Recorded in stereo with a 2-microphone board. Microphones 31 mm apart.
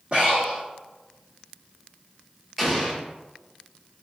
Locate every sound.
0.1 s breathing: 35° right (ahead or behind), 1.8 m
2.6 s an explosion: 5° right (ahead or behind), 1.3 m